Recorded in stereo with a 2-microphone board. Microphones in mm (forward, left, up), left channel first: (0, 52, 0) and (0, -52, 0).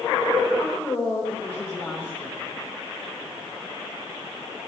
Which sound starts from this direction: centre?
A woman speaking, at 0.6 s.